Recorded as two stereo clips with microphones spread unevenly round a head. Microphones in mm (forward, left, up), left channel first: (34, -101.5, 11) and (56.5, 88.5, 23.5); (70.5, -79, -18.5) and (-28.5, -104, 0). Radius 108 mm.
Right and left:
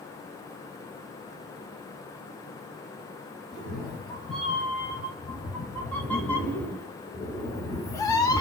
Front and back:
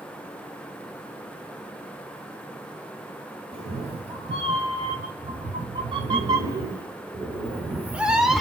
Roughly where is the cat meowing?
Behind.